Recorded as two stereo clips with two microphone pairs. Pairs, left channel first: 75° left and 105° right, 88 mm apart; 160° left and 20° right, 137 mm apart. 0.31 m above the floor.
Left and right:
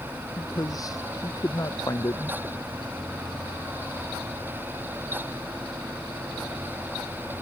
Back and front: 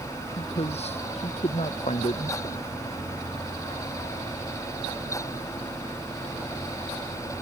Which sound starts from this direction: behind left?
A man speaking, at 0.4 s.